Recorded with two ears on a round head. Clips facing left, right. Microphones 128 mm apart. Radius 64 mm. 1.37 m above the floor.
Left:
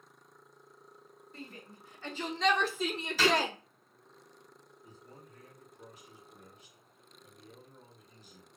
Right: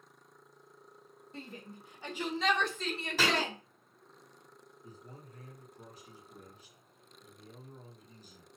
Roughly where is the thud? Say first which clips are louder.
Left 3 dB; right.